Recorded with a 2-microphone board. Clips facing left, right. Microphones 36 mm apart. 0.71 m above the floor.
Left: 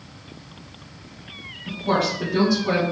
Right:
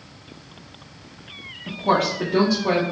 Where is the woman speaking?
45° right (ahead or behind), 0.7 m; by 2.8 s 65° right (ahead or behind), 1.3 m.